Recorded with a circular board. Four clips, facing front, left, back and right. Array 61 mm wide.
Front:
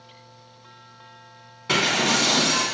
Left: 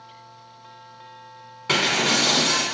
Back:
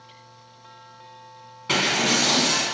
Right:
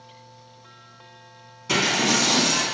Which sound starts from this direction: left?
Breaking glass, at 1.7 s.